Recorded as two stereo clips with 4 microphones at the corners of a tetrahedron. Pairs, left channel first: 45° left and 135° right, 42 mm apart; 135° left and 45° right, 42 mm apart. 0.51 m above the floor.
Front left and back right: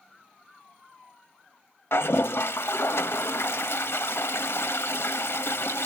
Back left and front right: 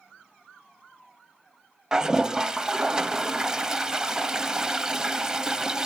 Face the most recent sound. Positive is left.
turn(degrees=30)